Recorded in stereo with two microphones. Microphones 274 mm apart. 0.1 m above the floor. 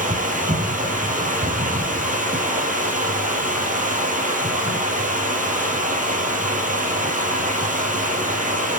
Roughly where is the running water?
Right.